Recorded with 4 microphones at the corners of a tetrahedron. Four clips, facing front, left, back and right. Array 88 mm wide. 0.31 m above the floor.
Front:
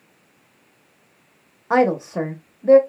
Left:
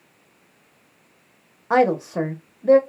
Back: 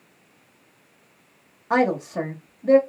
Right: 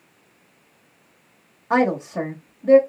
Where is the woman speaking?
30° left, 0.8 m.